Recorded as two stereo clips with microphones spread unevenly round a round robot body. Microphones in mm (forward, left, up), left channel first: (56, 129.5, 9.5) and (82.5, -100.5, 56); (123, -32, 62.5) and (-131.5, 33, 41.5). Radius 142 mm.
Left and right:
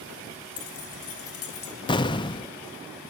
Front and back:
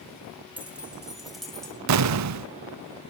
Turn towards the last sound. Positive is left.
turn(degrees=165)